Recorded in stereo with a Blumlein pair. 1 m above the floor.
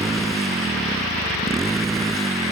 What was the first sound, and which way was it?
A motorcycle, 10° right.